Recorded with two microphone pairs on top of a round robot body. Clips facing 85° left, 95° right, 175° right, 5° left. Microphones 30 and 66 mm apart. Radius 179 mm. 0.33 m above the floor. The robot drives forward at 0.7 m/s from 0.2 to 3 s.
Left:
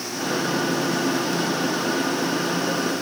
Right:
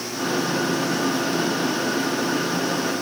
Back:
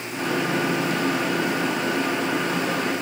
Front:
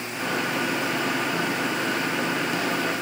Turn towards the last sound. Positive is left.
No sound to turn to.